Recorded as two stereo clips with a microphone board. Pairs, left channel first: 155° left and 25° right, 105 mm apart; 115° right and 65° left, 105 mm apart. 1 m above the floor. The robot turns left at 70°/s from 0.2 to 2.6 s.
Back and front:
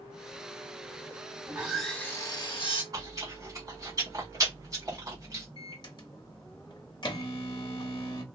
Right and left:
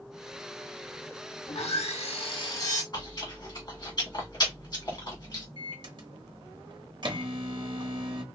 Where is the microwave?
110° left, 0.8 m.